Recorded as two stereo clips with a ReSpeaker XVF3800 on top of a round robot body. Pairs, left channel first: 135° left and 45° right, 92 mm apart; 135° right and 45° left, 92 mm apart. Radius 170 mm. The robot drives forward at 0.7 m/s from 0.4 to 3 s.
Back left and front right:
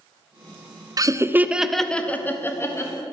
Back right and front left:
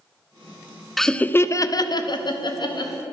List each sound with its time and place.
1.0 s laughter: 45° right, 0.7 m; by 2.9 s 165° right, 1.3 m